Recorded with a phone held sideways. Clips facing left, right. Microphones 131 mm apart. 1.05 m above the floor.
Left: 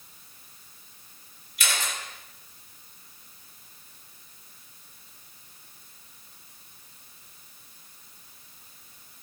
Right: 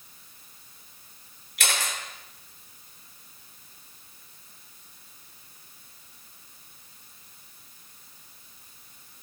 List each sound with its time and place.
1.6 s a camera shutter: 75° right (ahead or behind), 3 m